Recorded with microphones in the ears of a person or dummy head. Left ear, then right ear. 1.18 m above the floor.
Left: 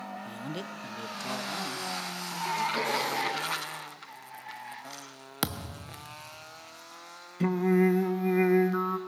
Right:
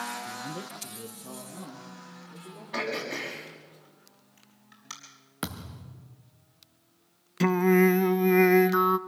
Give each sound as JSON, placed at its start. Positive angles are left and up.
{"t": 0.2, "sound": "a man speaking", "side_deg": 10, "distance_m": 0.6}
{"t": 2.7, "sound": "throat clearing", "side_deg": -40, "distance_m": 5.5}
{"t": 5.4, "sound": "a thud", "side_deg": 25, "distance_m": 0.7}
{"t": 7.4, "sound": "singing", "side_deg": -30, "distance_m": 0.6}